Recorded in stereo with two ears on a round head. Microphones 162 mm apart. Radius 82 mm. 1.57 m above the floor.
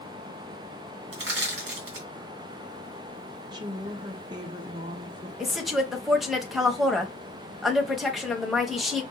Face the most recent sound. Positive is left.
turn(degrees=0)  # may be behind; listen again after turning